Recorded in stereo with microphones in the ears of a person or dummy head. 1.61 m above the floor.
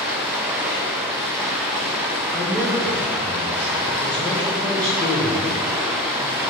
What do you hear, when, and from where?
0.0 s running water: centre (ahead or behind), 1.2 m
2.3 s a man speaking: 15° left (ahead or behind), 1.4 m